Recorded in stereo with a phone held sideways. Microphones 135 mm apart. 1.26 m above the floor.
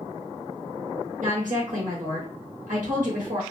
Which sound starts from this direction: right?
A woman speaking, at 1.2 s.